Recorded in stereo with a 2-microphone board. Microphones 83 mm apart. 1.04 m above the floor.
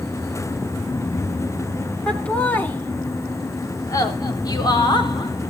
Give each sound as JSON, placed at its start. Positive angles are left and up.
{"t": 2.1, "sound": "laughter", "side_deg": 15, "distance_m": 3.0}